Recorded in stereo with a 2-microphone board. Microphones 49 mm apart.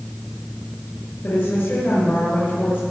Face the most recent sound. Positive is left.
turn(degrees=55)  # may be behind; listen again after turning